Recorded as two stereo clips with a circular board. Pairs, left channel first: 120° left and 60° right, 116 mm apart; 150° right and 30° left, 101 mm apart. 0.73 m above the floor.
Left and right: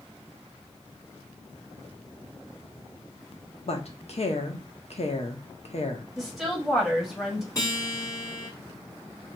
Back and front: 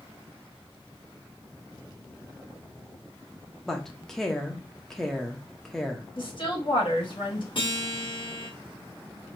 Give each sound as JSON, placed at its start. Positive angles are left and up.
{"t": 3.7, "sound": "a woman speaking", "azimuth_deg": 125, "distance_m": 1.0}
{"t": 6.2, "sound": "a woman speaking", "azimuth_deg": -150, "distance_m": 1.6}
{"t": 7.5, "sound": "a guitar", "azimuth_deg": 175, "distance_m": 1.8}